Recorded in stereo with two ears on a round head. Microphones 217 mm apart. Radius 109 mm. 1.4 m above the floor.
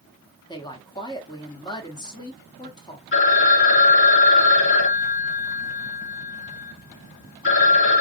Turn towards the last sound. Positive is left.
turn(degrees=55)  # may be behind; listen again after turning